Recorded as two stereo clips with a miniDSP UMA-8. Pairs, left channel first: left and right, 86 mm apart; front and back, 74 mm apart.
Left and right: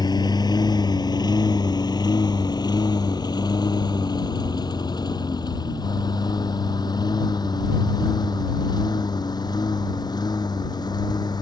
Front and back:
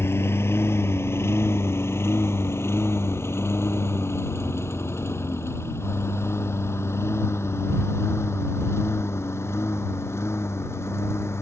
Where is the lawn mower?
55° left.